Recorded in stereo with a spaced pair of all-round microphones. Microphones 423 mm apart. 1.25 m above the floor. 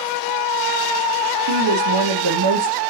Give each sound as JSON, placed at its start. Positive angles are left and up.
{"t": 1.5, "sound": "a woman speaking", "side_deg": -70, "distance_m": 0.6}